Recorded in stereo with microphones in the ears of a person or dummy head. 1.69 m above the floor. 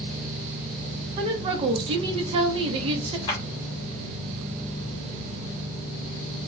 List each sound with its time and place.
1.2 s a woman speaking: 30° right (ahead or behind), 0.6 m
3.3 s a clap: 25° left (ahead or behind), 1.3 m